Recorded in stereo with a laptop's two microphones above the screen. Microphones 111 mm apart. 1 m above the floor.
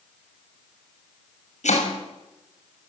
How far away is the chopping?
About 7 m.